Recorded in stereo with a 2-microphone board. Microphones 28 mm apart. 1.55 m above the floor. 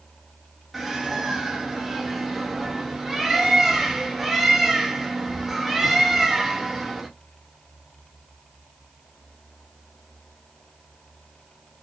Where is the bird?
10° right (ahead or behind), 1.7 m.